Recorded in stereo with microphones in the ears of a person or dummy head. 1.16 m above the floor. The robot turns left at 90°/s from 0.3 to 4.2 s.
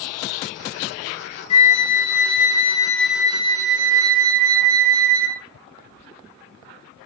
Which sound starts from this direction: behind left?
A flute, at 1.5 s.